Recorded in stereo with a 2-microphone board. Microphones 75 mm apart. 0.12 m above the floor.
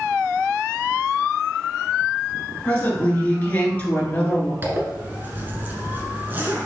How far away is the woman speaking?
About 1.9 m.